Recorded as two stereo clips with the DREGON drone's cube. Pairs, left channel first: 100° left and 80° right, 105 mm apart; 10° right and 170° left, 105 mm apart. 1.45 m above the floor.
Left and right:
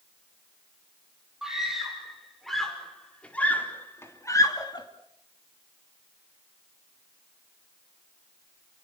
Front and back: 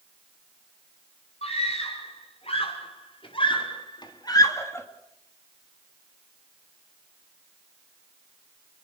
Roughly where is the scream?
Ahead.